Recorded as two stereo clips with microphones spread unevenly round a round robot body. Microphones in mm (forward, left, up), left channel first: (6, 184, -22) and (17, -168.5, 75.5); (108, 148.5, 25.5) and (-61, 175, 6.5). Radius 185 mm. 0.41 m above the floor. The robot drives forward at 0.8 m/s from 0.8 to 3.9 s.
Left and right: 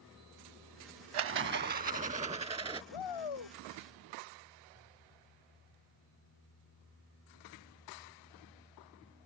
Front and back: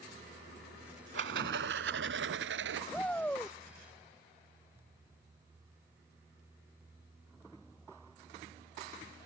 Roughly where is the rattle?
Behind right.